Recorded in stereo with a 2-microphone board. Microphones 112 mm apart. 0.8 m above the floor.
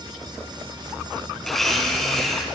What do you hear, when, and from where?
1.4 s a blender: centre (ahead or behind), 2.5 m